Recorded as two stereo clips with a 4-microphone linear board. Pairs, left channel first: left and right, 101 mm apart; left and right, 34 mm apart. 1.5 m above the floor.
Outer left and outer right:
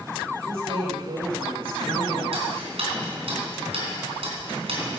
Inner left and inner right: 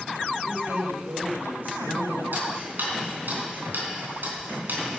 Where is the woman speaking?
75° right (ahead or behind), 5.5 m; by 2.2 s 60° right (ahead or behind), 6 m.